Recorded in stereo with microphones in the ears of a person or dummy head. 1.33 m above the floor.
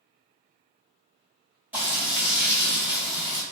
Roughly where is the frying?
Centre.